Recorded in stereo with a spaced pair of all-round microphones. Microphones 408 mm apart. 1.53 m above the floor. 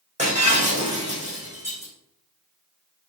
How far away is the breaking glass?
About 6 m.